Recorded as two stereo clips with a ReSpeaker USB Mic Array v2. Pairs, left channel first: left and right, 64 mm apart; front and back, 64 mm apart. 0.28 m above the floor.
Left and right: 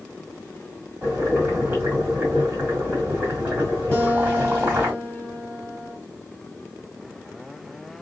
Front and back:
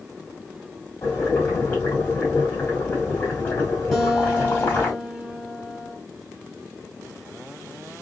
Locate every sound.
1.0 s boiling: 45° right, 2.0 m
3.9 s a guitar: 75° left, 1.6 m